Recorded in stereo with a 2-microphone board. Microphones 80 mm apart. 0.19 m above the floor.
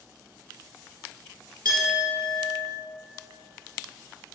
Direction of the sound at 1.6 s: 50° right (ahead or behind).